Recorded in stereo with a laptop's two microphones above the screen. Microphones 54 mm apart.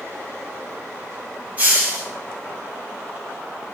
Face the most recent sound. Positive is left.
turn(degrees=-30)  # may be behind; listen again after turning